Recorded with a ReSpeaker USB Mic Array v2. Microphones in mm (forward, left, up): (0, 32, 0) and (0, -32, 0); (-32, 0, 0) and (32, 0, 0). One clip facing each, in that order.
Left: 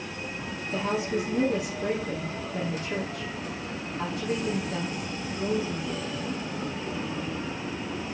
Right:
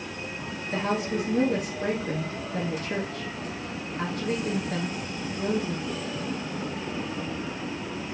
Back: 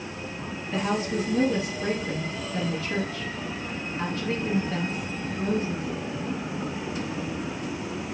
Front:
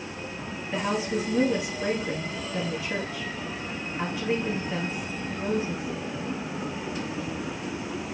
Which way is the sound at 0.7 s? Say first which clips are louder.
Right 1 dB, back 1 dB; 80° right.